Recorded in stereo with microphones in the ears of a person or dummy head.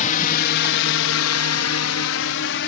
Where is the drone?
40° left (ahead or behind); by 2.7 s 60° left (ahead or behind).